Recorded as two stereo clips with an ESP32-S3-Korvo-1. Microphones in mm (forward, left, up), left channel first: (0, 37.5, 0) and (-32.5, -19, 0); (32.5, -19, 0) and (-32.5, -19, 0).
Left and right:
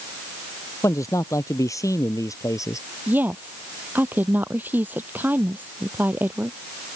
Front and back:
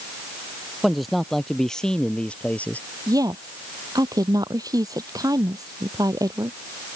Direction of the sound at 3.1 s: Straight behind.